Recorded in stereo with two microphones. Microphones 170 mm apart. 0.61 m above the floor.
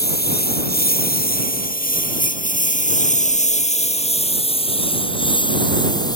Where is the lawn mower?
75° left (ahead or behind); by 6.2 s 25° left (ahead or behind).